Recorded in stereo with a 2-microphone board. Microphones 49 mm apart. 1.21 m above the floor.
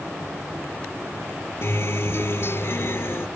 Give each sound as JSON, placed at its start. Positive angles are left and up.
{"t": 1.6, "sound": "a guitar", "side_deg": 60}